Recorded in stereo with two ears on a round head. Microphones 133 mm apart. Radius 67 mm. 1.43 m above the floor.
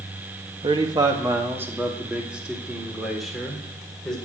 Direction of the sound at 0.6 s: 35° right (ahead or behind).